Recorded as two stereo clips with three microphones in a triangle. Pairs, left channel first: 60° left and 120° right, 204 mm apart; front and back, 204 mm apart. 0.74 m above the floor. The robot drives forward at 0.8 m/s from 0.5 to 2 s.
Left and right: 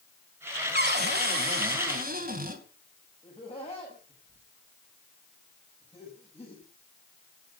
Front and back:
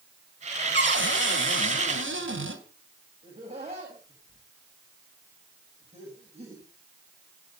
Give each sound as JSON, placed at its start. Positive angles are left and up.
{"t": 0.7, "sound": "a cupboard door", "azimuth_deg": -155, "distance_m": 1.9}
{"t": 3.2, "sound": "laughter", "azimuth_deg": 120, "distance_m": 5.5}